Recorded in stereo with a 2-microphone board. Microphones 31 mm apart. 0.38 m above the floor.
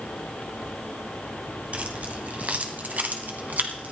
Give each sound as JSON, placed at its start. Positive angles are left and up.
{"t": 1.7, "sound": "keys jangling", "side_deg": -50, "distance_m": 1.9}